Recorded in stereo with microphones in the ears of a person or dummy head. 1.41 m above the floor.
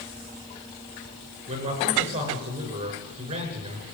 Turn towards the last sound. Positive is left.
turn(degrees=-40)  # may be behind; listen again after turning